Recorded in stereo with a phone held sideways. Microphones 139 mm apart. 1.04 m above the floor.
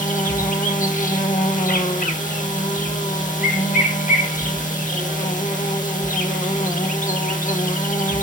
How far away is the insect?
About 1.2 m.